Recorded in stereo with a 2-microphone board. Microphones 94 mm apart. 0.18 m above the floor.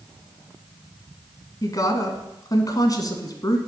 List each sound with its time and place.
1.6 s a woman speaking: 40° left (ahead or behind), 1.5 m